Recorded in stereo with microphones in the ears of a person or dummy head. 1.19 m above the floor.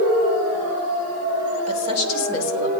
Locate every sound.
1.7 s a woman speaking: 90° left, 4 m